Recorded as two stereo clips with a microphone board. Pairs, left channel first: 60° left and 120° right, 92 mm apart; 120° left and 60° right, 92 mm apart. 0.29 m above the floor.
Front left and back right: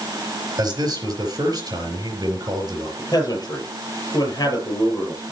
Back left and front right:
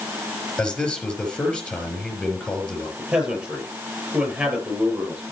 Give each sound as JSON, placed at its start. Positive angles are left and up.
{"t": 0.6, "sound": "a man speaking", "azimuth_deg": -165, "distance_m": 5.0}
{"t": 3.0, "sound": "a man speaking", "azimuth_deg": 15, "distance_m": 6.5}